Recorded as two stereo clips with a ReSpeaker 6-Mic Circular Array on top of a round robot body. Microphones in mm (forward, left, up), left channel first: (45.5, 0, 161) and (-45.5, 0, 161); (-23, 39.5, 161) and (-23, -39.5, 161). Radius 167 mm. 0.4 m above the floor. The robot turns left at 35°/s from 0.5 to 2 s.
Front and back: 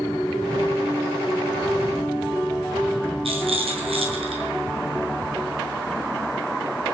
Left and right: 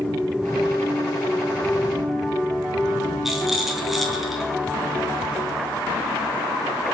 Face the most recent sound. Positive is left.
turn(degrees=180)